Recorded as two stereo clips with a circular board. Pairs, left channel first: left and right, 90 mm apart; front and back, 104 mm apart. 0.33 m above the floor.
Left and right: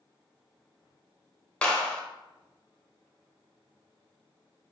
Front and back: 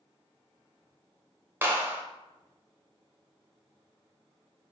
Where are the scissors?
I don't hear scissors.